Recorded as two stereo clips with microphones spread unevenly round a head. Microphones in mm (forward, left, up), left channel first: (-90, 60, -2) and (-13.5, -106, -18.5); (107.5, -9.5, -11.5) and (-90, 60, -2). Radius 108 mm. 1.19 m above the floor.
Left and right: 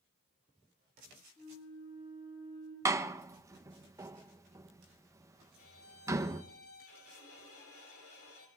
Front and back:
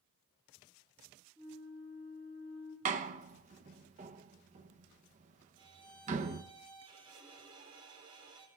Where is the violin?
95° left, 5 m.